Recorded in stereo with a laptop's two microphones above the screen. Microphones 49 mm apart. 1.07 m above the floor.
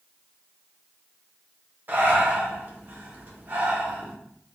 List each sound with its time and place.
1.9 s breathing: 40° right (ahead or behind), 0.5 m